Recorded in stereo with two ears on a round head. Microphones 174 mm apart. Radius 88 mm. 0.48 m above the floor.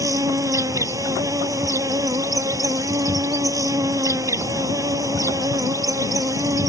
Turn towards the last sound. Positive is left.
turn(degrees=-15)  # may be behind; listen again after turning